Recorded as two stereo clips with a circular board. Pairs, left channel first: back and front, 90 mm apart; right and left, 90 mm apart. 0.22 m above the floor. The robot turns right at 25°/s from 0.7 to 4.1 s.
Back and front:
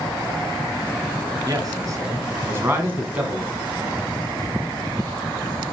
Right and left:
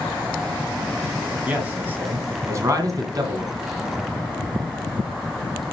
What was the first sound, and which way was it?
A man speaking, 20° left.